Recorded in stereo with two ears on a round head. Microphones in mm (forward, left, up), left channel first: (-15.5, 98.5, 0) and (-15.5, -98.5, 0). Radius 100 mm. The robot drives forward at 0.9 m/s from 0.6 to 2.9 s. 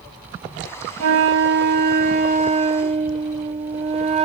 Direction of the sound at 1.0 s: 70° right (ahead or behind).